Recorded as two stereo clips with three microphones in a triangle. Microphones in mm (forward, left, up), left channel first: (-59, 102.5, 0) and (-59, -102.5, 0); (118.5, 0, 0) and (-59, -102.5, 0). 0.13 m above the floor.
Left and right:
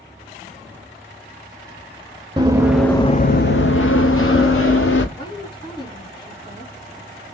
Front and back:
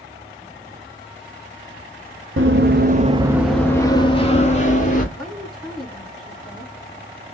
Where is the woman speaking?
120° left, 1.3 m.